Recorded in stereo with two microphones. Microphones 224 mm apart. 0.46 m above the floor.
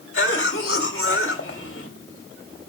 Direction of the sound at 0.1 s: 65° left (ahead or behind).